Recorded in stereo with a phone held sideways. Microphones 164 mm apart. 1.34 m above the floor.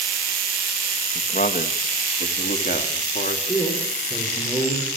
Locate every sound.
1.1 s a man speaking: 55° left (ahead or behind), 1.7 m; by 3.4 s 65° left (ahead or behind), 3 m
3.5 s a man speaking: 15° left (ahead or behind), 5 m